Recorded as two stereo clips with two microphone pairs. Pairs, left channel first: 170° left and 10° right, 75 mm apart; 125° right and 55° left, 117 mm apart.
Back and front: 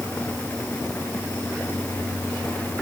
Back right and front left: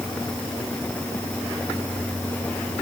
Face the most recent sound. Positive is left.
No sound to turn to.